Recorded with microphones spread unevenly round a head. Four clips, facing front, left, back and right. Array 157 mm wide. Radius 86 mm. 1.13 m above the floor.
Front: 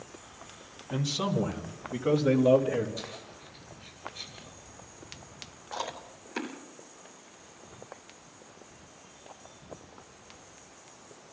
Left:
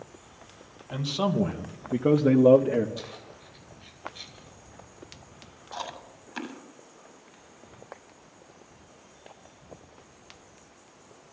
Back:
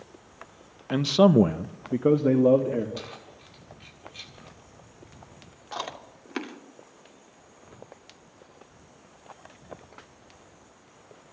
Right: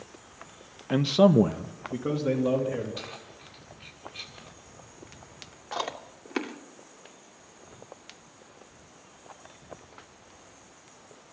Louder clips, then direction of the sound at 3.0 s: Left 1 dB, back 1 dB; 130° right.